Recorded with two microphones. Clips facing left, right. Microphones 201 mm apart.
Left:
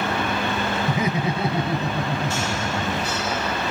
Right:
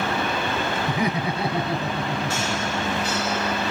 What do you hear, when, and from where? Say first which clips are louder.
0.9 s laughter: left 1 dB; 20° left (ahead or behind), 1.4 m; by 3.1 s 25° left (ahead or behind), 2.0 m